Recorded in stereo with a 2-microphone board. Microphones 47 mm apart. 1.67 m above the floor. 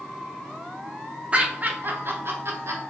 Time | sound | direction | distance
1.3 | laughter | 25° right (ahead or behind) | 0.9 m